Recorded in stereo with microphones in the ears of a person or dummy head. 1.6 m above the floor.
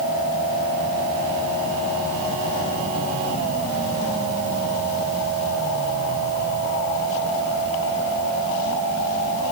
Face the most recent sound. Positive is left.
No sound to turn to.